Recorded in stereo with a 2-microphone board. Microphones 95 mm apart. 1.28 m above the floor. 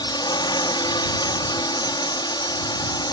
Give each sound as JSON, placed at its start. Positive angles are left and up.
{"t": 0.0, "sound": "a drone", "side_deg": 55}